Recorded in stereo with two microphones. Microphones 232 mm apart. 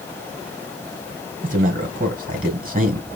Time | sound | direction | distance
1.4 | a man speaking | 40° right (ahead or behind) | 2 m